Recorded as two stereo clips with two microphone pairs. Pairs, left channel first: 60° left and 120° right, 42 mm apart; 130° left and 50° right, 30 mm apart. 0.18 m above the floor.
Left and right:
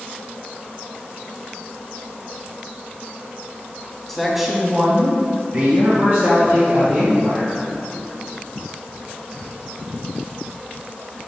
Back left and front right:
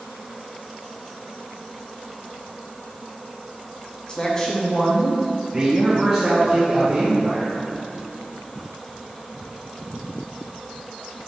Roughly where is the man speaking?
Behind left.